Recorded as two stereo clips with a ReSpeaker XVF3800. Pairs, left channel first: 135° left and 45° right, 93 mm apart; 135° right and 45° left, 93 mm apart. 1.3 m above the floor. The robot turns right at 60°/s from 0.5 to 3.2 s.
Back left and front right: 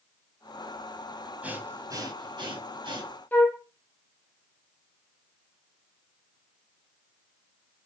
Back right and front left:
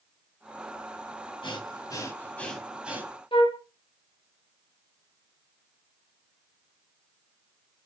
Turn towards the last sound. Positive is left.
turn(degrees=-155)